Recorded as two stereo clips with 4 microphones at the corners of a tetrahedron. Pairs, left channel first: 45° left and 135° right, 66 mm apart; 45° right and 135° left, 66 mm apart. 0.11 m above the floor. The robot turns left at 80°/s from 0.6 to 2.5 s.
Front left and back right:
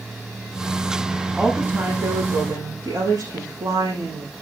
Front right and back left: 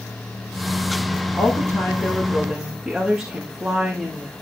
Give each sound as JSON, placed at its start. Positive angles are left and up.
{"t": 1.4, "sound": "a woman speaking", "azimuth_deg": -50, "distance_m": 8.0}